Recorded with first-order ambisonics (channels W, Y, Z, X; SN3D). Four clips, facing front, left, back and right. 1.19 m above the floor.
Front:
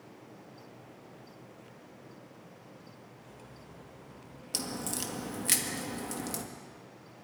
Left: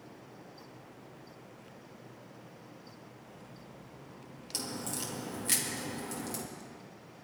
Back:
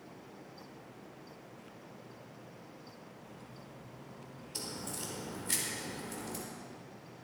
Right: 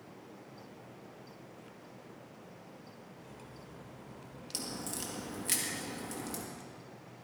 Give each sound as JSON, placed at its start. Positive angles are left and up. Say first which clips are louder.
{"t": 3.2, "sound": "cutlery clinking", "louder": "right 1 dB, even", "azimuth_deg": -50, "distance_m": 2.5}
{"t": 4.5, "sound": "a crack", "louder": "left 2 dB, front 6 dB", "azimuth_deg": 5, "distance_m": 2.0}